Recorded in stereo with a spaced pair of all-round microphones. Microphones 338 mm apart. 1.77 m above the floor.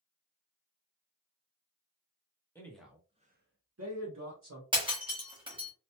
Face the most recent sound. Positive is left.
turn(degrees=-15)  # may be behind; listen again after turning